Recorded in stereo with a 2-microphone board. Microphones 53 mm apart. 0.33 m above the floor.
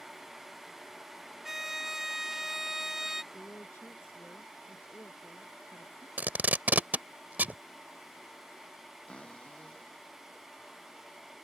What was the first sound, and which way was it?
A violin, 10° right (ahead or behind).